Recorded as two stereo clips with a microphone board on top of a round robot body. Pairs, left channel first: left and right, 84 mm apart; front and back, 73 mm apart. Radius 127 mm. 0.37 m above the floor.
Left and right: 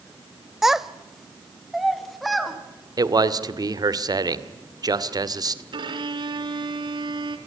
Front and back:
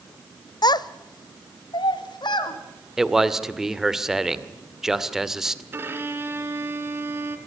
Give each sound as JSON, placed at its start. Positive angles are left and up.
{"t": 0.6, "sound": "a child speaking", "azimuth_deg": -5, "distance_m": 1.0}
{"t": 3.0, "sound": "a man speaking", "azimuth_deg": -100, "distance_m": 2.0}
{"t": 5.7, "sound": "a violin", "azimuth_deg": -120, "distance_m": 2.0}